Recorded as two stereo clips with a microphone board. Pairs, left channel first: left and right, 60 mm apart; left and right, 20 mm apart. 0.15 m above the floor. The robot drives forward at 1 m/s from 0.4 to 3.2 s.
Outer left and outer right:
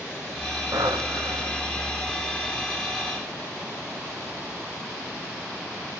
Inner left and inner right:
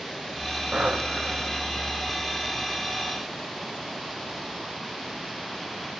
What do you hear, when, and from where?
0.7 s breathing: 85° right, 6 m; by 1.8 s 75° right (ahead or behind), 6.5 m